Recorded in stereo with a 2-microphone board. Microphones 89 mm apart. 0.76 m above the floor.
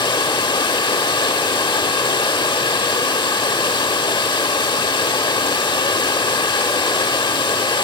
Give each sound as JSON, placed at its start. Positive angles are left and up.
{"t": 0.0, "sound": "running water", "side_deg": 65, "distance_m": 0.8}